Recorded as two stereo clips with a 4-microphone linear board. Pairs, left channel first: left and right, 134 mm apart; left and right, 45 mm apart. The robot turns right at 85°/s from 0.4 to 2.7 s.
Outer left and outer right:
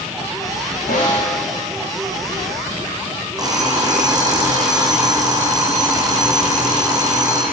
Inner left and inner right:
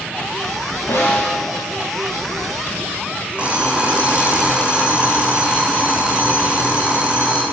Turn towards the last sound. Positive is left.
turn(degrees=-25)  # may be behind; listen again after turning